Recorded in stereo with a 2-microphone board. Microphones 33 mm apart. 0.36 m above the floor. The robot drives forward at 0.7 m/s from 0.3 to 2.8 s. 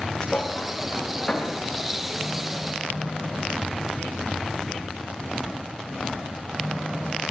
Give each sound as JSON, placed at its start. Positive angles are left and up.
{"t": 0.2, "sound": "a thud", "side_deg": 15, "distance_m": 8.0}